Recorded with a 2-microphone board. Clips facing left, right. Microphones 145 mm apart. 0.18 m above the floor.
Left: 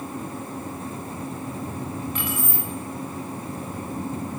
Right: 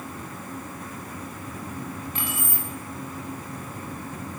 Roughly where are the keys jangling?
Right.